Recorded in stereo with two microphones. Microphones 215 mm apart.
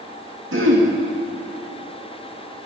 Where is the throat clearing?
70° right (ahead or behind), 2.5 m.